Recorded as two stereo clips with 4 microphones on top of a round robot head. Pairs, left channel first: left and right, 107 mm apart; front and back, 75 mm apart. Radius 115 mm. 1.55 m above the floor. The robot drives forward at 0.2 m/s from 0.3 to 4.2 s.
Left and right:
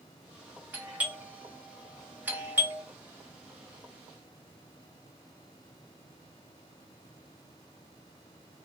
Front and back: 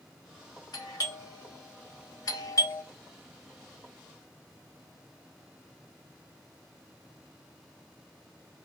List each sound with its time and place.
0.7 s a doorbell: 15° right, 1.3 m; by 2.8 s 25° right, 1.0 m